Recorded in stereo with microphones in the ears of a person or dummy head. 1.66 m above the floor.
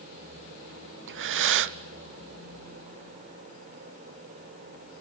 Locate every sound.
1.1 s breathing: 65° right (ahead or behind), 0.5 m